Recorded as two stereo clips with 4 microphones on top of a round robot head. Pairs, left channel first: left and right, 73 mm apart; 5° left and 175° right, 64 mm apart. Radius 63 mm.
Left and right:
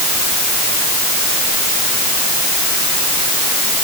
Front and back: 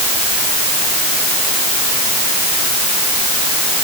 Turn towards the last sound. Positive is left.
No sound to turn to.